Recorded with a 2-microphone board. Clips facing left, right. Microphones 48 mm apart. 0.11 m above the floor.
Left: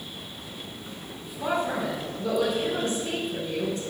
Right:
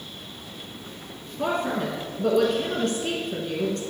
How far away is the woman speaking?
About 3.5 m.